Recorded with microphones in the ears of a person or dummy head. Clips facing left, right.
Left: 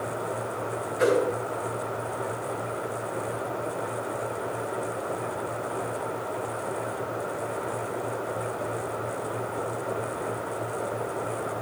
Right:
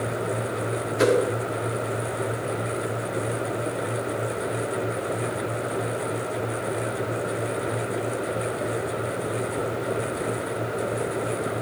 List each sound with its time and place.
1.0 s a whoosh: 60° right (ahead or behind), 1.9 m